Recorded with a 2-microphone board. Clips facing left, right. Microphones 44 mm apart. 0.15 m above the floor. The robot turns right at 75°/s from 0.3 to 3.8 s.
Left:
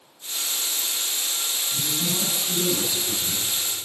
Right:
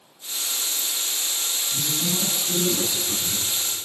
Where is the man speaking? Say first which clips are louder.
Right 1 dB; 170° left, 1.9 m; by 3.5 s 55° right, 1.9 m.